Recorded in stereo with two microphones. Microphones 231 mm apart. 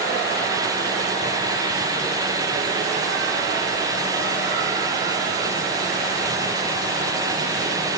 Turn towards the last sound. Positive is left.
No sound to turn to.